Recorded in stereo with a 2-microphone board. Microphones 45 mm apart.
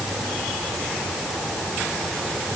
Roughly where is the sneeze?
I don't hear a sneeze.